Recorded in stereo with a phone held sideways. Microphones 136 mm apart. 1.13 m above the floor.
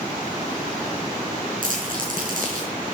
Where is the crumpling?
75° right (ahead or behind), 5.5 m.